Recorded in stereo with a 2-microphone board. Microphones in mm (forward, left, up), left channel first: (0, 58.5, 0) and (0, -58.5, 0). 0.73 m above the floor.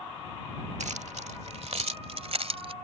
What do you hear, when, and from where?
0.8 s keys jangling: 85° right; by 2.7 s 60° right (ahead or behind)